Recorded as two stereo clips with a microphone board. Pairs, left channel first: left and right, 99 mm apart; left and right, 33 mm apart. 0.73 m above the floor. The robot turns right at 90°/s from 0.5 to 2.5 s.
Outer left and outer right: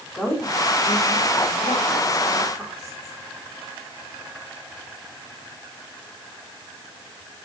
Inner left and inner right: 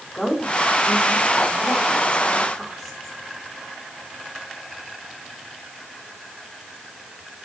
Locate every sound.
0.1 s a woman speaking: 5° left, 5.5 m; by 3.2 s 175° right, 5.5 m